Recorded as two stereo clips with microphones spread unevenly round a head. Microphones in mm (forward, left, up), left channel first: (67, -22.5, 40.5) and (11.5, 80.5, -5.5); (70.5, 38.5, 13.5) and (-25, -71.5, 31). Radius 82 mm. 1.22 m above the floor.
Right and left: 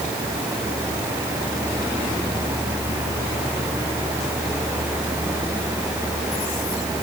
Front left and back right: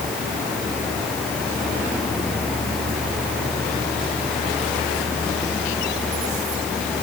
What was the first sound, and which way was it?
Only background noise.